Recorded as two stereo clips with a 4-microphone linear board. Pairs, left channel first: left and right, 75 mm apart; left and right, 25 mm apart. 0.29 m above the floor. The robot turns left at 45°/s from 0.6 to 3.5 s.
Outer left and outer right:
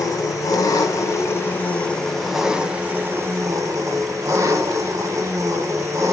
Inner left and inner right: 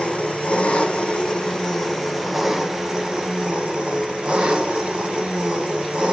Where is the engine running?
75° left, 1.3 m; by 6.1 s 55° right, 1.3 m.